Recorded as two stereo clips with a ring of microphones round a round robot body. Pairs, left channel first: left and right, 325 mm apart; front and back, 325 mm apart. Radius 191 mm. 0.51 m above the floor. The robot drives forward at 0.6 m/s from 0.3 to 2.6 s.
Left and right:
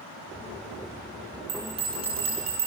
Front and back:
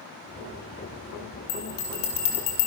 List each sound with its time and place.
1.5 s a bell: 15° right, 4.5 m